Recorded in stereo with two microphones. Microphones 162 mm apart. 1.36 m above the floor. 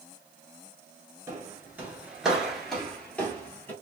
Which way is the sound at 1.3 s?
20° right (ahead or behind).